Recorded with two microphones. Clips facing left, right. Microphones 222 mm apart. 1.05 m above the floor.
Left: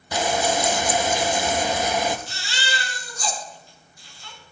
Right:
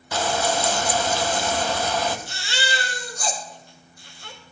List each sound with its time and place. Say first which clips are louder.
0.1 s frying: left 1 dB; 15° left (ahead or behind), 0.8 m
2.3 s a baby crying: right 3 dB; 55° right (ahead or behind), 2 m